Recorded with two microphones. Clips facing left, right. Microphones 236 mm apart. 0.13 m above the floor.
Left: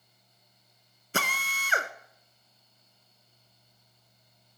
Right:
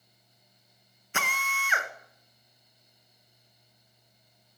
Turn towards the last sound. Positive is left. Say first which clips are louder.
# left 3 dB
turn(degrees=40)  # may be behind; listen again after turning